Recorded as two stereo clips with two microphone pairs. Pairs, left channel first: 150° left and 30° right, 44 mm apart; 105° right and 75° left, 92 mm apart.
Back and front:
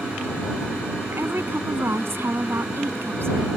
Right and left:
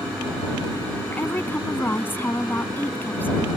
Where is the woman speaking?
40° right.